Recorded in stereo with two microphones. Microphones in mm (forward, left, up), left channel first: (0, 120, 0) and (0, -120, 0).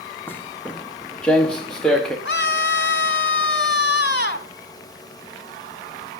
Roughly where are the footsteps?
Centre.